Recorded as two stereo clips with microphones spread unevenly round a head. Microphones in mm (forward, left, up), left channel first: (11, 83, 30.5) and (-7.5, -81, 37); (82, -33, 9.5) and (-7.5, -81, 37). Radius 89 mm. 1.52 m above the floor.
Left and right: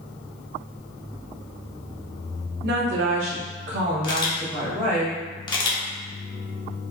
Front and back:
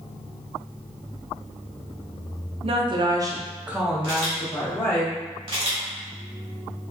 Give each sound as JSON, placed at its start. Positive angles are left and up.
{"t": 2.6, "sound": "a woman speaking", "azimuth_deg": -125, "distance_m": 0.7}
{"t": 4.0, "sound": "a camera shutter", "azimuth_deg": 150, "distance_m": 0.6}